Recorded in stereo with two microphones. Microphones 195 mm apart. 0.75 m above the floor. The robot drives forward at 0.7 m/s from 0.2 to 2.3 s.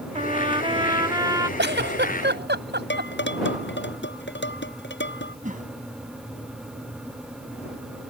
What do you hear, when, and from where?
0.1 s a trumpet: 35° right (ahead or behind); by 1.5 s 20° right (ahead or behind)
1.6 s a giggle: 65° right (ahead or behind); by 3.1 s 60° right (ahead or behind)
2.9 s dishes clattering: 65° left (ahead or behind)
5.4 s a whoosh: 40° right (ahead or behind)